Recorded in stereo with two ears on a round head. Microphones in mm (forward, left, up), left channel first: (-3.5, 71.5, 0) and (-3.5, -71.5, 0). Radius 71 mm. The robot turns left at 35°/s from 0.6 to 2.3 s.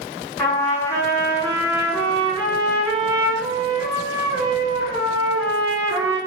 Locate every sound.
0.4 s a trumpet: 35° left, 2.0 m; by 6.2 s 20° right, 2.0 m